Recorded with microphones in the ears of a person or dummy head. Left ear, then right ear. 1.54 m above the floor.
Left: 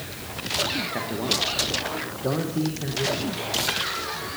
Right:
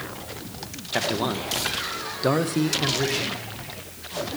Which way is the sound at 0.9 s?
50° right (ahead or behind).